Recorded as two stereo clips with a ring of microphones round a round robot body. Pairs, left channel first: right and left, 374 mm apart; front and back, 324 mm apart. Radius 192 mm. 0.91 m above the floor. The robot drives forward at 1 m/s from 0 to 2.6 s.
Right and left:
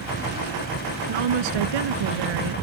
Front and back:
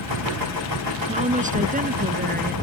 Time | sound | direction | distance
1.1 | a woman speaking | 110° left | ?